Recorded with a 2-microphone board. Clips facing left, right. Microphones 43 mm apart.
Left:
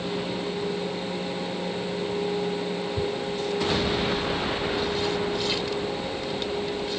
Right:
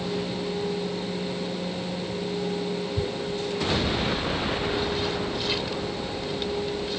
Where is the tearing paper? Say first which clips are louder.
Left 1 dB; 5° right (ahead or behind).